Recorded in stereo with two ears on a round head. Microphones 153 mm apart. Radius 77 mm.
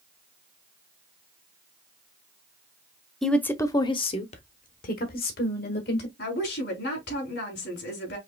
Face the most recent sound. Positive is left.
turn(degrees=70)  # may be behind; listen again after turning